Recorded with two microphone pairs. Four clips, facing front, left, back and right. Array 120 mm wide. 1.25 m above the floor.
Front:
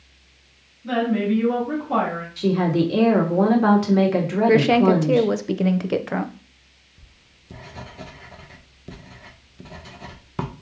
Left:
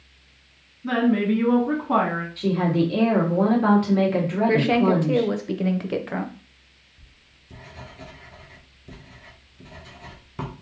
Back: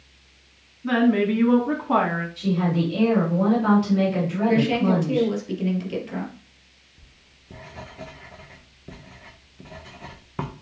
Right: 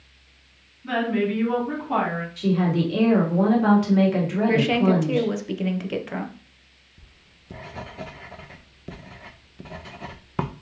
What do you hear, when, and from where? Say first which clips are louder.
0.8 s a woman speaking: left 3 dB, back 2 dB; 145° left, 1.8 m
2.4 s a woman speaking: even, front 5 dB; 5° left, 1.4 m
4.5 s a woman speaking: left 1 dB, front 5 dB; 5° left, 0.6 m
7.0 s writing: right 5 dB, front 1 dB; 75° right, 0.6 m